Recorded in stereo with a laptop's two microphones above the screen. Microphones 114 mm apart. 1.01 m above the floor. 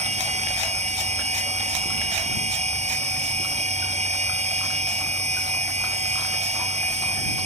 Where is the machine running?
80° right.